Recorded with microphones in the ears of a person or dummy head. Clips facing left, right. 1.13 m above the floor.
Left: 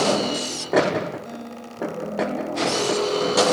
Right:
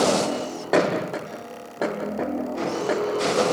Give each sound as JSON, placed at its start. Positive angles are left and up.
{"t": 1.2, "sound": "a guitar", "side_deg": 45, "distance_m": 7.5}